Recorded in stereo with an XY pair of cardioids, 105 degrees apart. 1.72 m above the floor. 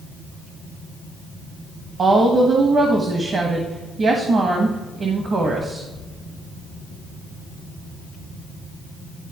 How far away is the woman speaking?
About 1.1 m.